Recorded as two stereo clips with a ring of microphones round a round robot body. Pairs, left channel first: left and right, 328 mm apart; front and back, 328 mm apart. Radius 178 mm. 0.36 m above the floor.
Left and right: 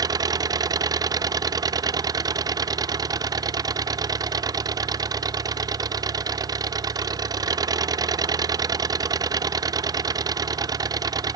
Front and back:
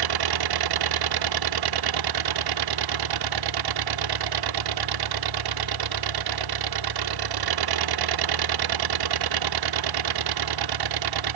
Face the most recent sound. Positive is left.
turn(degrees=-170)